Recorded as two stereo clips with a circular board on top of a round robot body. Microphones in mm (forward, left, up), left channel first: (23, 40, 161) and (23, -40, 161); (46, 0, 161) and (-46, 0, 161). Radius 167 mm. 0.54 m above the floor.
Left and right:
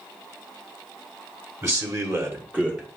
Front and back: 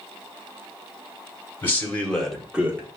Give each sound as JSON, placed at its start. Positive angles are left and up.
{"t": 1.6, "sound": "a man speaking", "azimuth_deg": -60, "distance_m": 1.8}